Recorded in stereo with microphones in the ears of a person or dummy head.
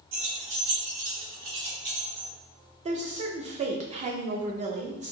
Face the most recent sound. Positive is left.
turn(degrees=-35)  # may be behind; listen again after turning